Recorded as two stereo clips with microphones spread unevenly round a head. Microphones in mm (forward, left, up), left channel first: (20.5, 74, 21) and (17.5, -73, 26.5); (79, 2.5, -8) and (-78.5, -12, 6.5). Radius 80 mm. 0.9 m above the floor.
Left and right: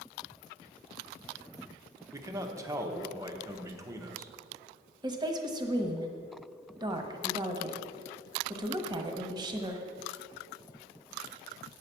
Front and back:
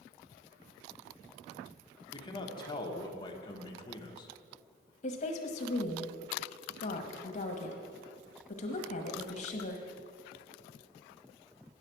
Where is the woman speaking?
30° right, 1.1 m.